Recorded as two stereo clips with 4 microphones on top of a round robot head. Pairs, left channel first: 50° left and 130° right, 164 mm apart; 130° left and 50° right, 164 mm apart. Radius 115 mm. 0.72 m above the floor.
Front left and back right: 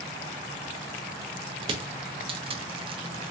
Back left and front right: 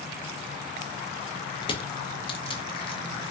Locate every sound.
1.6 s crushing: straight behind, 0.6 m